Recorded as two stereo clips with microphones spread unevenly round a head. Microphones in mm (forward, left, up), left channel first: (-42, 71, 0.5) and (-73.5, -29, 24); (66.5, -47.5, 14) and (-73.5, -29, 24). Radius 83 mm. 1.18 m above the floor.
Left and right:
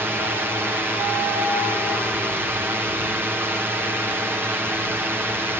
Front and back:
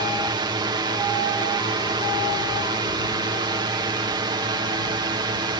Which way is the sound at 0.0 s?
Straight behind.